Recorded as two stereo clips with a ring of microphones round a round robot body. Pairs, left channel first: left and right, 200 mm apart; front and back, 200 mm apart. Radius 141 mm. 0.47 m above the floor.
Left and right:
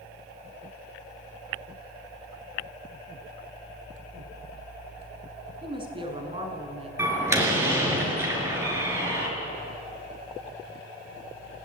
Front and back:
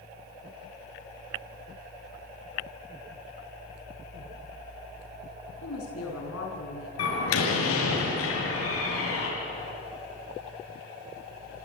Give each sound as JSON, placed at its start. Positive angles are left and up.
{"t": 5.6, "sound": "a woman speaking", "azimuth_deg": -25, "distance_m": 5.5}
{"t": 7.0, "sound": "a door slam", "azimuth_deg": -10, "distance_m": 6.5}